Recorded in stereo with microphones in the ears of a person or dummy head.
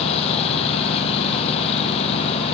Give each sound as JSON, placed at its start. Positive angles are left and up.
{"t": 0.0, "sound": "a lawn mower", "side_deg": 35}